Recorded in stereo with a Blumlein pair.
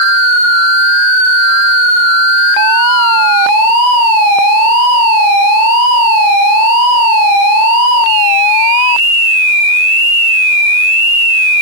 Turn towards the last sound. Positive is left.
No sound to turn to.